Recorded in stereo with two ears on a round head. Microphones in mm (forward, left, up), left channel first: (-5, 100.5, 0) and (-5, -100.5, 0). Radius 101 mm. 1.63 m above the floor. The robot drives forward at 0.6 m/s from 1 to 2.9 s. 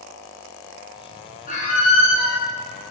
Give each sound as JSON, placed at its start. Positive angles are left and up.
{"t": 1.5, "sound": "a squeak", "side_deg": 35, "distance_m": 0.6}